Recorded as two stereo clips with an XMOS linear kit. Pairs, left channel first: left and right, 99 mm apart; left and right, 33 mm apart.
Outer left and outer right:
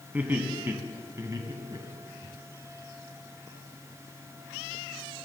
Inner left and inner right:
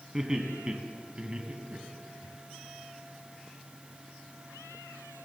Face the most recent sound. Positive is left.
turn(degrees=-50)  # may be behind; listen again after turning